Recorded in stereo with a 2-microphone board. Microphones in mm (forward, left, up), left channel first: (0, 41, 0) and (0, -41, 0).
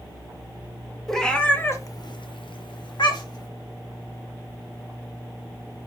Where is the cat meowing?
5° left (ahead or behind), 1.0 m; by 3.5 s 55° left (ahead or behind), 1.3 m.